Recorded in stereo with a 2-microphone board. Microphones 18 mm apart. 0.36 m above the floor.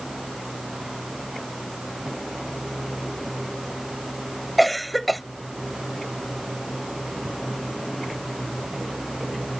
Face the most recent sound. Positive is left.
turn(degrees=0)  # may be behind; listen again after turning